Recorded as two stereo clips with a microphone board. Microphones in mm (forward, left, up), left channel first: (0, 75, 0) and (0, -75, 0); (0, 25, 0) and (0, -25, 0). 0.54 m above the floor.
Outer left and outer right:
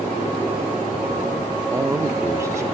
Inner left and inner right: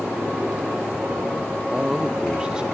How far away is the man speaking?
About 0.7 m.